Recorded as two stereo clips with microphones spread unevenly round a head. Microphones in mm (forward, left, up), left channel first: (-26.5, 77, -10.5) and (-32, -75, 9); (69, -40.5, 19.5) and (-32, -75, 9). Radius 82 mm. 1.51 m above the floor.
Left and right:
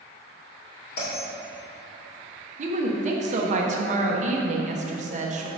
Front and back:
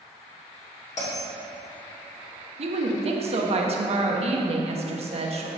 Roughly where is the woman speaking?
Behind right.